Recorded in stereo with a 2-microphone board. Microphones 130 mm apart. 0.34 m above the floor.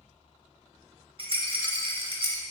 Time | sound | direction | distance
1.2 | a rattle | 40° right (ahead or behind) | 0.7 m